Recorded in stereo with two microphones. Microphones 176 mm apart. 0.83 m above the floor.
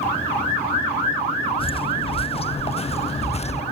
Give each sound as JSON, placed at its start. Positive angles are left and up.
{"t": 1.6, "sound": "footsteps", "side_deg": 30}